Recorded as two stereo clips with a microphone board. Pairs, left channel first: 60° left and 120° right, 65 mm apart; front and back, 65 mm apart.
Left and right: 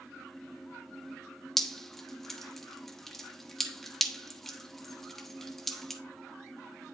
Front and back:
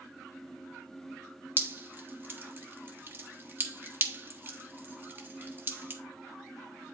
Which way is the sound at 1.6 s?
145° left.